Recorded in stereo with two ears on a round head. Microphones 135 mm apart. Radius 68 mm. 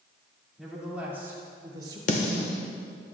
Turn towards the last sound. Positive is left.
turn(degrees=50)  # may be behind; listen again after turning